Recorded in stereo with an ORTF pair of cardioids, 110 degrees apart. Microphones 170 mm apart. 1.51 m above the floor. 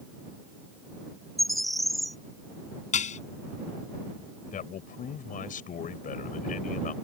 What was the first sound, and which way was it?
A bird, straight ahead.